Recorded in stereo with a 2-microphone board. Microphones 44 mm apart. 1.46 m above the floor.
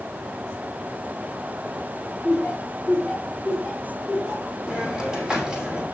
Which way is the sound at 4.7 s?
20° right (ahead or behind).